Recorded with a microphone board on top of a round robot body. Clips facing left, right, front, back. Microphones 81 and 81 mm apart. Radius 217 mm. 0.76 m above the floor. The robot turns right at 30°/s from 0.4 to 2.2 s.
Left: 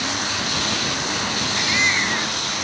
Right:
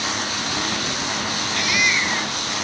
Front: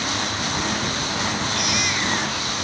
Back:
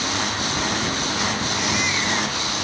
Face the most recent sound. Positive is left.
turn(degrees=40)